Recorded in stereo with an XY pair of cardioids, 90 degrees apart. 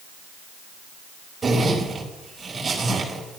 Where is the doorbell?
No doorbell in this recording.